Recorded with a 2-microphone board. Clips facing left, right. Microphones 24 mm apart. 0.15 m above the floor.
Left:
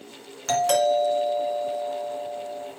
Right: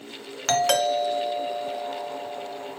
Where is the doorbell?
35° right (ahead or behind), 2 m.